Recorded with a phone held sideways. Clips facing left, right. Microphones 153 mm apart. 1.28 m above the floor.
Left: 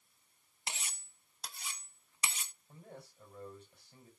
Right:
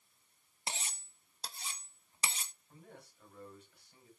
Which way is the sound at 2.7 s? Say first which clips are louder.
Left 7 dB; 30° left (ahead or behind).